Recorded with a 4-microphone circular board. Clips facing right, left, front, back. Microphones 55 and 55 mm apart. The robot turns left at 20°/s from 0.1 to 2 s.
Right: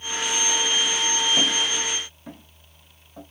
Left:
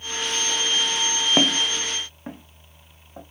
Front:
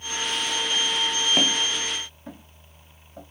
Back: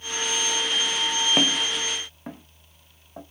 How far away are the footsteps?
About 0.5 m.